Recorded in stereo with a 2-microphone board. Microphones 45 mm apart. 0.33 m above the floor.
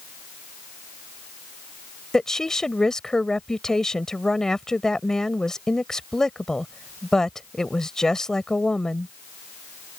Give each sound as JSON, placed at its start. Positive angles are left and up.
{"t": 2.1, "sound": "a woman speaking", "side_deg": 15}